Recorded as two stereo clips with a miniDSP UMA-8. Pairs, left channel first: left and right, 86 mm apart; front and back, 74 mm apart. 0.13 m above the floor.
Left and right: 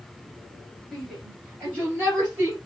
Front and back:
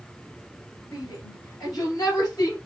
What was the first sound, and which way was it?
A shout, 15° right.